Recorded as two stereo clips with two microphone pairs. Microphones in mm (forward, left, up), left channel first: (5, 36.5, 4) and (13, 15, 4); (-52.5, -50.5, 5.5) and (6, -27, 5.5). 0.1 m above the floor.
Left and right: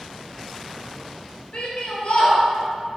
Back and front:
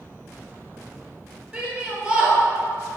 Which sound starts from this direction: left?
A shout, at 1.5 s.